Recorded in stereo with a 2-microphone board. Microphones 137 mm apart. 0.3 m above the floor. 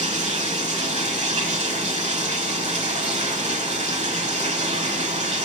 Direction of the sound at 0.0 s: 50° right (ahead or behind).